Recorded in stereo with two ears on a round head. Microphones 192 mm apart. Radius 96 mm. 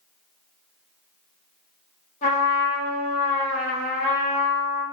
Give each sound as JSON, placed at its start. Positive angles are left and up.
{"t": 2.2, "sound": "a trumpet", "side_deg": 30, "distance_m": 0.9}